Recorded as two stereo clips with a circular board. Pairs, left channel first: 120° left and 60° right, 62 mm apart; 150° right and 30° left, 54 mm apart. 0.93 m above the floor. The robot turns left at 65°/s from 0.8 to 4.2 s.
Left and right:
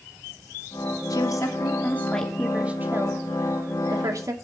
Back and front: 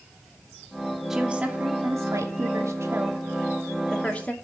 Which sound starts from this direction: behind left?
A woman speaking, at 1.1 s.